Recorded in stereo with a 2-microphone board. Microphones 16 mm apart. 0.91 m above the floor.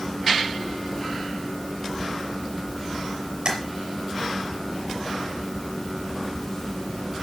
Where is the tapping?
50° right (ahead or behind), 5 m.